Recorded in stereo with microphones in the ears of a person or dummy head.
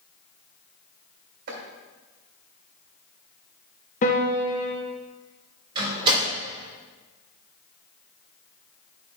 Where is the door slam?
30° right (ahead or behind), 3.5 m.